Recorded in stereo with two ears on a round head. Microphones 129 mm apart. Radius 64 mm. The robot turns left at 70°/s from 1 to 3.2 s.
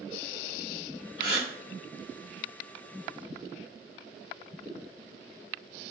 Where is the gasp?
35° left (ahead or behind), 2 m; by 1.5 s 55° left (ahead or behind), 2 m.